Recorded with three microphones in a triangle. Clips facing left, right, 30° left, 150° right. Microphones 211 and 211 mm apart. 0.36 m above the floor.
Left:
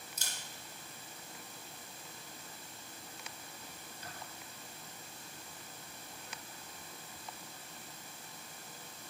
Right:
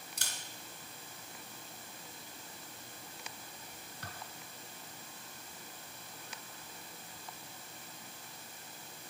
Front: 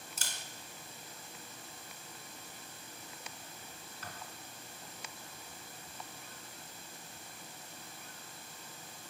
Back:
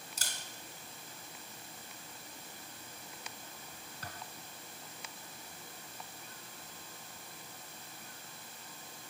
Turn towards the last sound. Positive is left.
turn(degrees=-100)